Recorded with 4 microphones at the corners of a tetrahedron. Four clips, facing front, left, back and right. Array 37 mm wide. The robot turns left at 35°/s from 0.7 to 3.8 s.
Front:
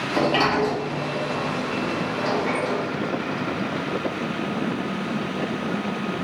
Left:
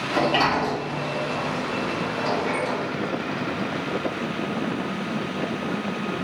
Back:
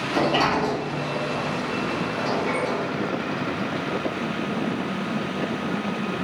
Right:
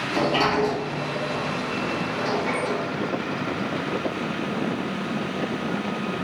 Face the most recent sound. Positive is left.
turn(degrees=-55)